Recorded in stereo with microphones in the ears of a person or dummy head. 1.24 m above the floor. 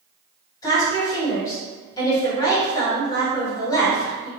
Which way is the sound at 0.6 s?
20° left (ahead or behind).